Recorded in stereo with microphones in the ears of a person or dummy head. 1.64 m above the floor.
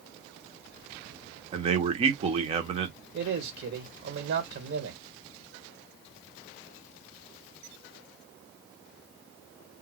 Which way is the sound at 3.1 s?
60° right (ahead or behind).